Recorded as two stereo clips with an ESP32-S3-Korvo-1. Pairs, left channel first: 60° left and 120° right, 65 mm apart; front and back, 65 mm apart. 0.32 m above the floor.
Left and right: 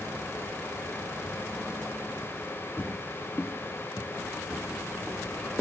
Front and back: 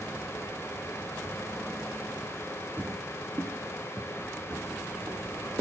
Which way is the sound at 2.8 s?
120° left.